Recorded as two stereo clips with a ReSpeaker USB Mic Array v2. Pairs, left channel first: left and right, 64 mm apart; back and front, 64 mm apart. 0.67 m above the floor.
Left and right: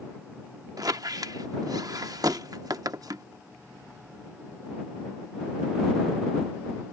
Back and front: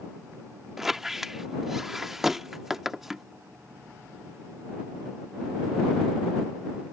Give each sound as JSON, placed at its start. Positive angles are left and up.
{"t": 0.8, "sound": "a squeak", "azimuth_deg": -85}